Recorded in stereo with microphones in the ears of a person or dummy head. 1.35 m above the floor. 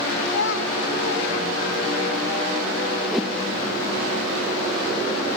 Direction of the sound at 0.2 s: 65° left (ahead or behind).